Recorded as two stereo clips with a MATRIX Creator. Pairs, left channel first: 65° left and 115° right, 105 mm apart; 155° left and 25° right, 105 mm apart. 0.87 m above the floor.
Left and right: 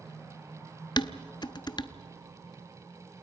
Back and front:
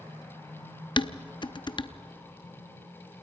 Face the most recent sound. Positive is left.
turn(degrees=115)